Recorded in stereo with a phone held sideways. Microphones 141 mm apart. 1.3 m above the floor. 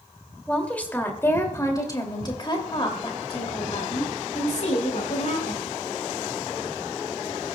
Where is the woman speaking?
5° left (ahead or behind), 2.5 m; by 5.7 s 65° left (ahead or behind), 4 m.